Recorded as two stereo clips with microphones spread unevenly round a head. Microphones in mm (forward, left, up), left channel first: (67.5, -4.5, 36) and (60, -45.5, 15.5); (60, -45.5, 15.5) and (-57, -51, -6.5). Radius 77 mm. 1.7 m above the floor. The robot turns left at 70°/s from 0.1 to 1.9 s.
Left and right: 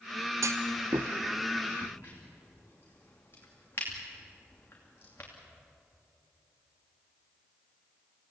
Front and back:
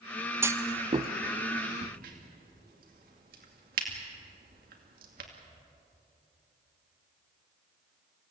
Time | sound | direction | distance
0.4 | a clunk | 105° right | 0.9 m
1.8 | a crack | 155° left | 2.5 m